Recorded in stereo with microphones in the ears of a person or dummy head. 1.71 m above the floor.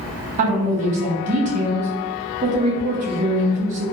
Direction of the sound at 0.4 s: 40° right (ahead or behind).